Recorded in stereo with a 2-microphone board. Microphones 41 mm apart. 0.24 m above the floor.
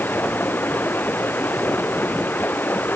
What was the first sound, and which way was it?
Running water, 55° left (ahead or behind).